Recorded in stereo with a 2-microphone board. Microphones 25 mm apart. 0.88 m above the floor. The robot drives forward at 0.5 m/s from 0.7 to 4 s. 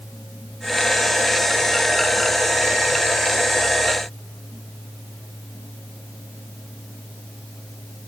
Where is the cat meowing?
I don't hear a cat meowing.